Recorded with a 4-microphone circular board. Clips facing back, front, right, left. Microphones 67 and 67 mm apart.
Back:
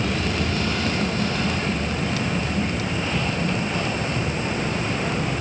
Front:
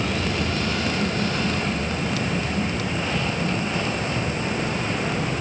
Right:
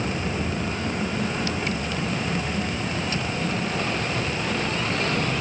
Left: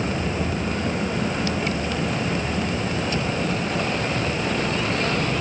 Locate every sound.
Only background noise.